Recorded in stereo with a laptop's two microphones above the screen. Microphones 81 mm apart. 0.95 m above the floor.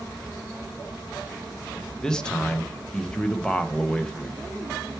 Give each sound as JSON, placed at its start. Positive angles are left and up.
{"t": 2.0, "sound": "a man speaking", "side_deg": 10, "distance_m": 0.6}